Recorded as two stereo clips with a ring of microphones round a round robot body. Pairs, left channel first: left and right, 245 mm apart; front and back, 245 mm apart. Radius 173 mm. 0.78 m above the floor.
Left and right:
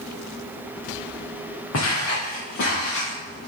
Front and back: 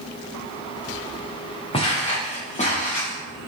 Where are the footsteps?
65° left, 3 m; by 3.2 s 60° left, 4 m.